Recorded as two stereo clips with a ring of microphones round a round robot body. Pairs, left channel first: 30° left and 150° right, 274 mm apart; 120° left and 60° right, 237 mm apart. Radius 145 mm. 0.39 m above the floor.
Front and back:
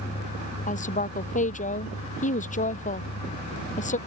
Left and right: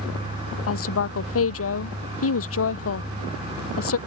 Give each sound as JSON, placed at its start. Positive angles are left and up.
{"t": 0.7, "sound": "a woman speaking", "azimuth_deg": 95}